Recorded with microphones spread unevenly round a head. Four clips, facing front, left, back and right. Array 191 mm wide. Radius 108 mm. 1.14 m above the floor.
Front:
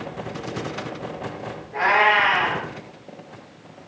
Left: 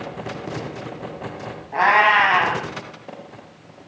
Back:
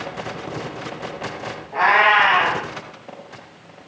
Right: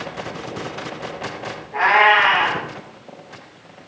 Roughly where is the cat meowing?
Left.